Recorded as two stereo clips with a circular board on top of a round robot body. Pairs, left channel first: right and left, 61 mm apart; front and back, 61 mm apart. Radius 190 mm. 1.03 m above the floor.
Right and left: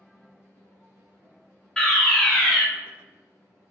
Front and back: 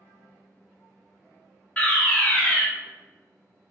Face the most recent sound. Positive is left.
turn(degrees=-20)